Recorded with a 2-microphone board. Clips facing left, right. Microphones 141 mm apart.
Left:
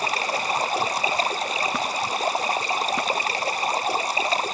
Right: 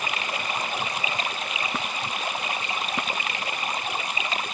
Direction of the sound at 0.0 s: 35° left (ahead or behind).